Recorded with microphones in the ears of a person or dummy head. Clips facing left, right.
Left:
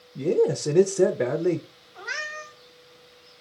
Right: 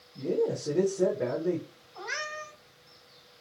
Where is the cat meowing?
5° left (ahead or behind), 1.5 m.